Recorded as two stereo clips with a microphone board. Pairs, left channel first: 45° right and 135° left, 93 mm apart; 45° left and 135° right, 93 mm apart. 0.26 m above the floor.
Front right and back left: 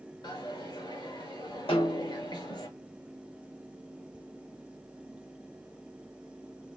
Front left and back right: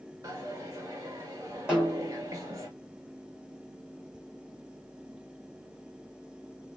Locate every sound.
0.2 s a dropped coin: 80° right, 2 m
1.7 s a snare drum: 60° right, 2.5 m